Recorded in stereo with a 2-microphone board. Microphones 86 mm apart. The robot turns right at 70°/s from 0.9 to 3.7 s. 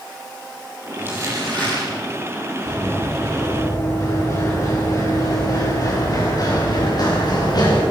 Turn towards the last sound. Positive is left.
turn(degrees=55)  # may be behind; listen again after turning